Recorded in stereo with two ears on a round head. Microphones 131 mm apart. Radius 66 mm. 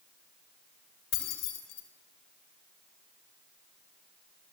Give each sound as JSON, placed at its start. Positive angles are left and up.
{"t": 1.1, "sound": "keys jangling", "side_deg": 80, "distance_m": 4.0}